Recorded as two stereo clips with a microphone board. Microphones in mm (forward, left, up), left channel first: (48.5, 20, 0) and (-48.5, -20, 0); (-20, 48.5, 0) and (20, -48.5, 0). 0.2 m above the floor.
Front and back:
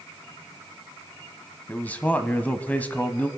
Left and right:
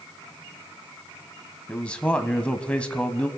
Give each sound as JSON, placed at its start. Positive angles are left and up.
{"t": 1.7, "sound": "a man speaking", "azimuth_deg": 55, "distance_m": 1.0}